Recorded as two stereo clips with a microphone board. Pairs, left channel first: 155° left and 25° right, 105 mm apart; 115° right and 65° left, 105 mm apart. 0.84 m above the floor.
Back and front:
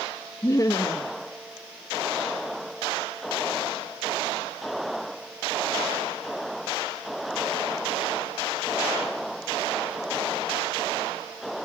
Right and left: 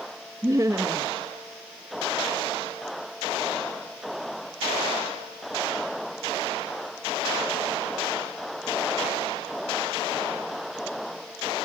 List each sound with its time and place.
0.4 s laughter: 115° left, 0.6 m